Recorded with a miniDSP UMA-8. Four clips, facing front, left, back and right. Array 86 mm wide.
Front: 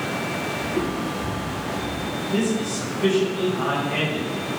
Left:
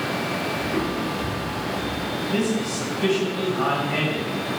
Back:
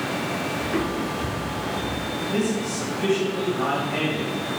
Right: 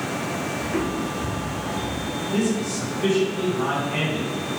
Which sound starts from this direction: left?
A man speaking, at 2.3 s.